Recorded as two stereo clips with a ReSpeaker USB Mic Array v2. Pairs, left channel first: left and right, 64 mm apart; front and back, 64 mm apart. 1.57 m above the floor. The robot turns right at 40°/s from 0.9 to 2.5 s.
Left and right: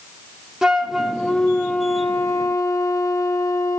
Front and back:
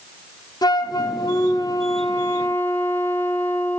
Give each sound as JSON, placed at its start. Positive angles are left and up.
{"t": 0.6, "sound": "a flute", "azimuth_deg": -5, "distance_m": 0.8}